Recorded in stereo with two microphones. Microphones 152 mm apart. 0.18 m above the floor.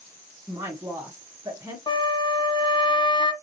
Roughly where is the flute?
Left.